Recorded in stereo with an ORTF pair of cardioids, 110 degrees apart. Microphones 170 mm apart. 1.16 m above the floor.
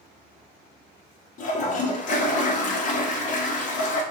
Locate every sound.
1.4 s a toilet flushing: 45° left, 0.6 m